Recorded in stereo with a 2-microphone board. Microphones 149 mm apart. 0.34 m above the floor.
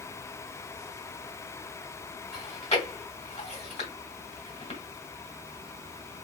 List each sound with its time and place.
2.3 s chewing: 40° left (ahead or behind), 1.7 m